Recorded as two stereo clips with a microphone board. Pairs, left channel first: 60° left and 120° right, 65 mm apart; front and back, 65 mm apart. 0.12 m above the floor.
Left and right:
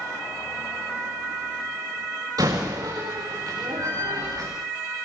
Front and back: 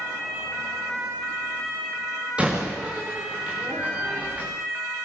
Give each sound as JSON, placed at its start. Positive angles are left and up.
{"t": 2.4, "sound": "a door slam", "azimuth_deg": -105, "distance_m": 8.0}